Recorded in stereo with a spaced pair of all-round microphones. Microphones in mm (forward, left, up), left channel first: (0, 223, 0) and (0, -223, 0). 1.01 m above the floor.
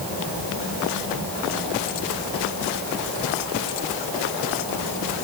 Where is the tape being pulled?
I don't hear tape being pulled.